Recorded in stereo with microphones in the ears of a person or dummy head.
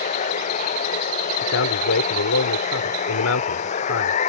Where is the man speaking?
80° left.